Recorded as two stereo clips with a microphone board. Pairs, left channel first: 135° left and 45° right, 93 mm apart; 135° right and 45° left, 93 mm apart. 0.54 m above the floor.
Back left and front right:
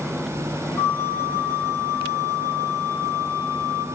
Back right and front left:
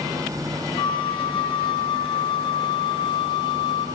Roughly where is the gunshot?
No gunshot in this recording.